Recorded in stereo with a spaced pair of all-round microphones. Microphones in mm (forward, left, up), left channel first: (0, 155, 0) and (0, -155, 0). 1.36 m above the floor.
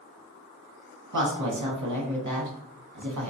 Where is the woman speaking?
70° right (ahead or behind), 0.9 m.